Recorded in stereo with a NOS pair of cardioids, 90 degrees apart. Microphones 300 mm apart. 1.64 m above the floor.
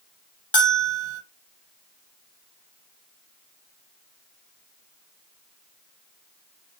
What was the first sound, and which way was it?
A bell, 15° left.